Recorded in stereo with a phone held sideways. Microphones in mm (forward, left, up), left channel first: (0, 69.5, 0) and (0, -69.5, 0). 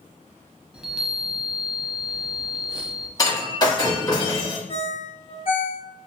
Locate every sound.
0.7 s a chime: 5° right (ahead or behind), 0.6 m
3.2 s breaking glass: 30° left (ahead or behind), 1.2 m
4.7 s a ringtone: 40° left (ahead or behind), 0.9 m